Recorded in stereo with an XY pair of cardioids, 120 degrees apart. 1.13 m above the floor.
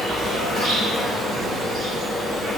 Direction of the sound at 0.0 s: 50° right.